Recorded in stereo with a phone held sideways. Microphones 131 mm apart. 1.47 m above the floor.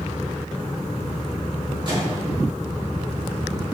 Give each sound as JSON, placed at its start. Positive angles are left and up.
{"t": 1.9, "sound": "a microwave", "side_deg": -35, "distance_m": 3.0}